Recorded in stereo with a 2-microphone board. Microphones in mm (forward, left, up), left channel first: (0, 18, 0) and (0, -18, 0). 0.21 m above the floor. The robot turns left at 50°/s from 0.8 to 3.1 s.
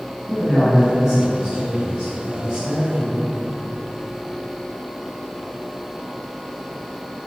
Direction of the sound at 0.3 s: 10° right.